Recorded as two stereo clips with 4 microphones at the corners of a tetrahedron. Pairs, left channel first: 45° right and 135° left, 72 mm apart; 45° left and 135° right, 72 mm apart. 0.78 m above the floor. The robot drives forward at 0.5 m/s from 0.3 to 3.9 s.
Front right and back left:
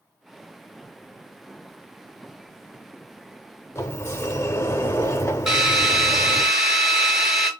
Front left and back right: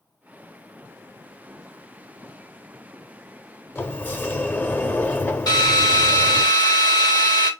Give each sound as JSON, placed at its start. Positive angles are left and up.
{"t": 3.8, "sound": "a sliding door", "azimuth_deg": -5, "distance_m": 0.6}
{"t": 5.5, "sound": "a drill", "azimuth_deg": 50, "distance_m": 1.8}